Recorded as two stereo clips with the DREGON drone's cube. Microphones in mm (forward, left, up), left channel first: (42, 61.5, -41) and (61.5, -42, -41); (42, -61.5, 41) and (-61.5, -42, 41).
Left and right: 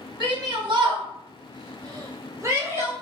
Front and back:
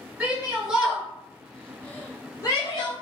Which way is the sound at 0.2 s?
115° right.